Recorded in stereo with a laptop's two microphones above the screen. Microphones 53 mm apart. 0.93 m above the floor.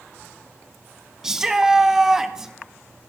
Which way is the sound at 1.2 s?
10° right (ahead or behind).